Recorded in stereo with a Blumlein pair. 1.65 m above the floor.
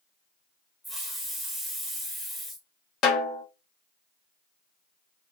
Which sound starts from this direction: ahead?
A hiss, at 0.8 s.